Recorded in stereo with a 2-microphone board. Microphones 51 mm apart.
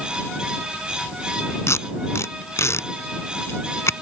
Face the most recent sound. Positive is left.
turn(degrees=65)  # may be behind; listen again after turning